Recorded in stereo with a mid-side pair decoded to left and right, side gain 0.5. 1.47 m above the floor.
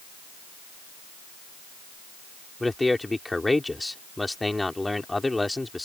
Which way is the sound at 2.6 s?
10° left.